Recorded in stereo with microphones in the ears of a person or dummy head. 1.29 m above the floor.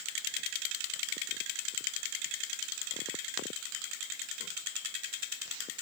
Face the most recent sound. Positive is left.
No sound to turn to.